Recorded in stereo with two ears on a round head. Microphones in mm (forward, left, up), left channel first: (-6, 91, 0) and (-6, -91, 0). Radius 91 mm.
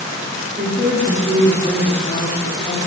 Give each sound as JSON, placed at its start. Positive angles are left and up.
{"t": 0.6, "sound": "a woman speaking", "side_deg": -15, "distance_m": 1.8}